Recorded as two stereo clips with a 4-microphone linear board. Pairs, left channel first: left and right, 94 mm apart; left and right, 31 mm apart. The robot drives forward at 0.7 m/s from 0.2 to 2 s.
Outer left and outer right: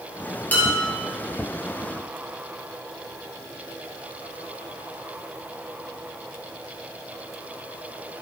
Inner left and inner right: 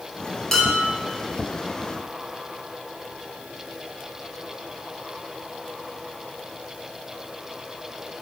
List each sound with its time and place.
0.5 s dishes clattering: 15° left (ahead or behind), 1.8 m